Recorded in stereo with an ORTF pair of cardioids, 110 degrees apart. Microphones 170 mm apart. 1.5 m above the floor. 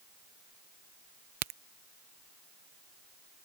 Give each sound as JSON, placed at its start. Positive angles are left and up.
{"t": 1.4, "sound": "a crack", "azimuth_deg": -70}